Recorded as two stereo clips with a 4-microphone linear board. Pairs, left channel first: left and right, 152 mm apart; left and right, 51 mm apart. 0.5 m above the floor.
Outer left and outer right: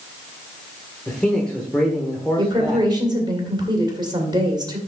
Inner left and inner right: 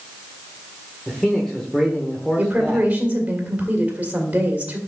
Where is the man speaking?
5° left (ahead or behind), 1.3 m.